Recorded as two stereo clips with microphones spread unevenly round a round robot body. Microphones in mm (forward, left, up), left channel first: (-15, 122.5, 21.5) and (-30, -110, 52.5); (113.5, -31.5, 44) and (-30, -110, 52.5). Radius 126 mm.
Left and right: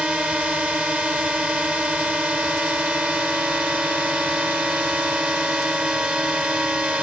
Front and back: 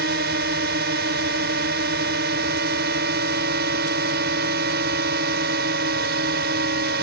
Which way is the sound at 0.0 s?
Straight behind.